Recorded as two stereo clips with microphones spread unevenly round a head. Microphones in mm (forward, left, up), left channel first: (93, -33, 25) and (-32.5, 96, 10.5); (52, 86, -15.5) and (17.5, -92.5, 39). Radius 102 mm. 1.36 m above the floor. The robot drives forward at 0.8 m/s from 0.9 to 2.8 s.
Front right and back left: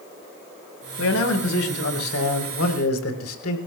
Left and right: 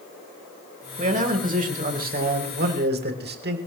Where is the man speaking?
50° right, 4.5 m; by 3.6 s 70° right, 3.5 m.